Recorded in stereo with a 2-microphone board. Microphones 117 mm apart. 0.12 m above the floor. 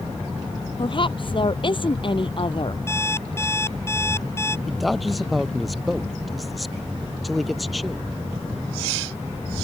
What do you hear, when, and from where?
0.8 s a woman speaking: 45° left (ahead or behind)
2.9 s an alarm clock: 20° left (ahead or behind)
4.7 s a man speaking: centre (ahead or behind)